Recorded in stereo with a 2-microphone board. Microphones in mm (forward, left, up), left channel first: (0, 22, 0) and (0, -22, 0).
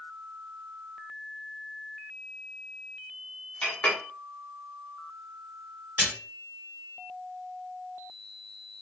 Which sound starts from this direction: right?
A splash, at 6.0 s.